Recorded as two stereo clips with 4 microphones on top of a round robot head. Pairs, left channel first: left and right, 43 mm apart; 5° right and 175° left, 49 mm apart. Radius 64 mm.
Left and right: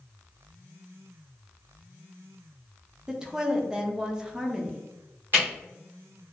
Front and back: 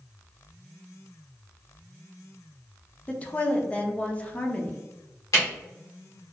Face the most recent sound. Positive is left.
turn(degrees=-35)